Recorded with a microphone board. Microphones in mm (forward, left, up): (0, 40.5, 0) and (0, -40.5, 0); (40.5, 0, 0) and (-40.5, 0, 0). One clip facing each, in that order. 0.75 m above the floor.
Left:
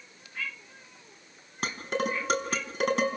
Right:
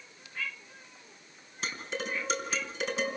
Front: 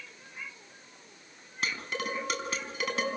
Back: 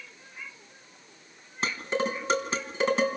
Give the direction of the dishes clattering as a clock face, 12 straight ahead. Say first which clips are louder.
Left 6 dB, back 6 dB; 8 o'clock.